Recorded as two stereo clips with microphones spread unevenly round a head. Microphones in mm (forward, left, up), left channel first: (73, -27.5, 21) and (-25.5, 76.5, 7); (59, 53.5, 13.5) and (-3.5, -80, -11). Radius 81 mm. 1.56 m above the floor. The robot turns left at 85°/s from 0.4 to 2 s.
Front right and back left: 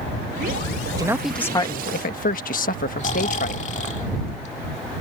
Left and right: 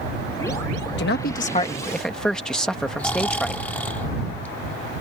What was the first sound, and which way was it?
A man speaking, 70° left.